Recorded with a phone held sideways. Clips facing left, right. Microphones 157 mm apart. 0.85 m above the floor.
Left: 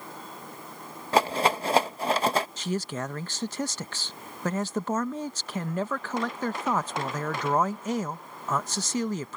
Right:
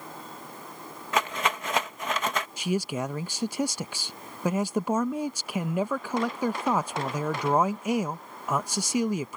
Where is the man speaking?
10° right (ahead or behind).